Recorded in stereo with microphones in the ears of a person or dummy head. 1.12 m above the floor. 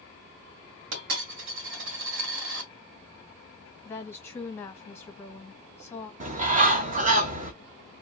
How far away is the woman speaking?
About 0.7 m.